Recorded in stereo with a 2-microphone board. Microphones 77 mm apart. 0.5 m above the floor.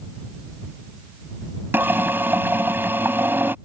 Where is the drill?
30° right (ahead or behind).